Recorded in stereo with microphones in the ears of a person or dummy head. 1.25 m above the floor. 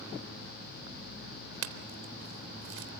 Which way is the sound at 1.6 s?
75° right (ahead or behind).